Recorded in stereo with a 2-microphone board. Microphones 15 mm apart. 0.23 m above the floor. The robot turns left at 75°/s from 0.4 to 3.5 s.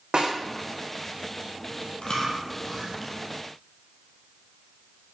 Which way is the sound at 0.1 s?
85° right.